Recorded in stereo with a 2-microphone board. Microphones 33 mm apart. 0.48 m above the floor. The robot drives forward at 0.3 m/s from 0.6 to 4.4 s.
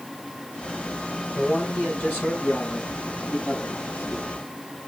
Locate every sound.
1.3 s a man speaking: 70° left (ahead or behind), 7.5 m; by 4.5 s 65° left (ahead or behind), 8 m